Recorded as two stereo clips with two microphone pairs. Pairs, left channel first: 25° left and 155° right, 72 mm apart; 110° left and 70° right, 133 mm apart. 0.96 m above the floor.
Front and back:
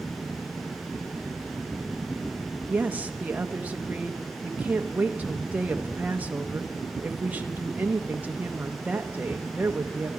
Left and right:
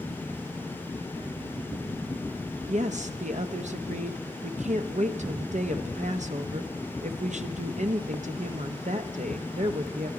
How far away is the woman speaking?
About 0.8 m.